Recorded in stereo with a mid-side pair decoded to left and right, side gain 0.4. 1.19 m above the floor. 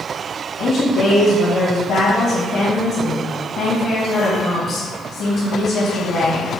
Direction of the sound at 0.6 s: 65° left.